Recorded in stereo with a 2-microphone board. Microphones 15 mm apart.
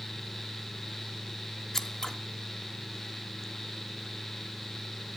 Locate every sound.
1.7 s scissors: 30° left (ahead or behind), 1.1 m